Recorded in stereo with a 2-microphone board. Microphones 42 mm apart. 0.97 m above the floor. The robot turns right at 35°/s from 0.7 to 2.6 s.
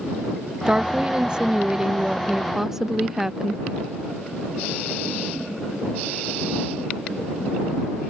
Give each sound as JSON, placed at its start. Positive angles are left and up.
{"t": 0.7, "sound": "a woman speaking", "side_deg": -25}